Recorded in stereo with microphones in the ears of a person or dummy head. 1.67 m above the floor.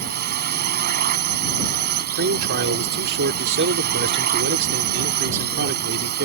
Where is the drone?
45° right (ahead or behind).